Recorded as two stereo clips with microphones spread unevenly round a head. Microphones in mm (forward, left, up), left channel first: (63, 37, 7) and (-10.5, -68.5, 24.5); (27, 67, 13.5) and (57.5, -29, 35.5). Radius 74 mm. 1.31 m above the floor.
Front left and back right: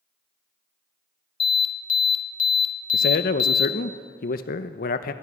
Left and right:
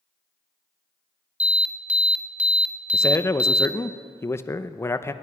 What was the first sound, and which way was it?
An alarm, straight ahead.